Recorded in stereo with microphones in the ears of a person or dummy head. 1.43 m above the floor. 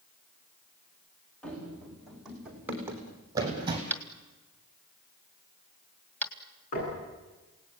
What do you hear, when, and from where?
1.4 s running footsteps: 5° left (ahead or behind), 5 m; by 3.8 s 25° right (ahead or behind), 3.5 m
3.9 s tapping: 10° left (ahead or behind), 2 m
6.7 s knocking: 45° left (ahead or behind), 9.5 m